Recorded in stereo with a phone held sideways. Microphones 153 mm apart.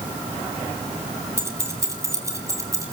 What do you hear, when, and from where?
1.4 s keys jangling: 20° right (ahead or behind), 3.5 m